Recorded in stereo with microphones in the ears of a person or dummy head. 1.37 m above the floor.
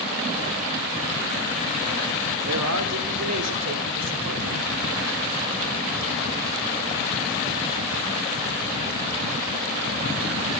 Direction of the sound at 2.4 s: 85° right.